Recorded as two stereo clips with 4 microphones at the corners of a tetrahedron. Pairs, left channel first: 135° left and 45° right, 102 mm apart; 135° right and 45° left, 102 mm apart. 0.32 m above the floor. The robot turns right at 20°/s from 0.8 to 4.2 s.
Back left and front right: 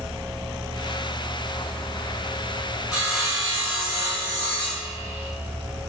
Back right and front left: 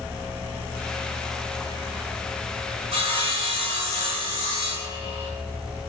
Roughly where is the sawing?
Ahead left.